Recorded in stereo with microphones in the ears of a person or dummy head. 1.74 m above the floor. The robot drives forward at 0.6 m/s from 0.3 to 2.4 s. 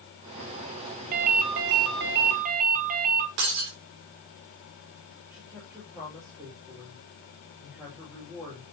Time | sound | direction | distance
1.1 | a ringtone | 50° right (ahead or behind) | 0.9 m
3.4 | breaking glass | 65° right (ahead or behind) | 2.5 m
5.3 | a woman speaking | 5° right (ahead or behind) | 5 m